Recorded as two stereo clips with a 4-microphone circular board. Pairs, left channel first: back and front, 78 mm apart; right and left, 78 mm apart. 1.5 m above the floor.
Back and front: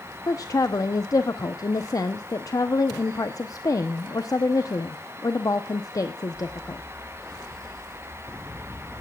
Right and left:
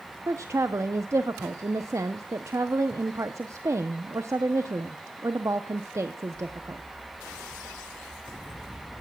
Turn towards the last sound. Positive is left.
turn(degrees=140)